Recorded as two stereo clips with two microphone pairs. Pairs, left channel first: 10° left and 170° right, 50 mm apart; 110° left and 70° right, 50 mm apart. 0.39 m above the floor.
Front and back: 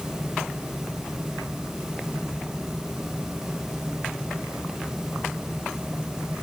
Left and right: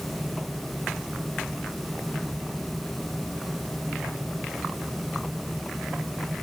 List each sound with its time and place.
Only background noise.